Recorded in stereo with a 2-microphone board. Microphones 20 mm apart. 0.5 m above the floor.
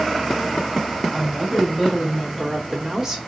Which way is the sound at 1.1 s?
Centre (ahead or behind).